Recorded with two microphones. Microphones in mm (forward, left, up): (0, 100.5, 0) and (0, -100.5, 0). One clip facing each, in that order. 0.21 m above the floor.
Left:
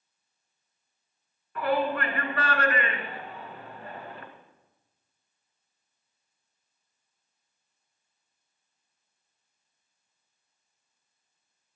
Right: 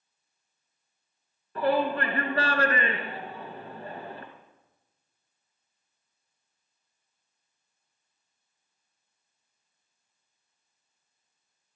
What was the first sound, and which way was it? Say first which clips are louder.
A shout: right 2 dB; 30° right (ahead or behind).